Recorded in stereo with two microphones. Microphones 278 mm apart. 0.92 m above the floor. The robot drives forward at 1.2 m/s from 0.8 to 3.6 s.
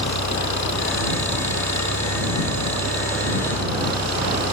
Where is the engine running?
80° left; by 4.5 s 70° left (ahead or behind).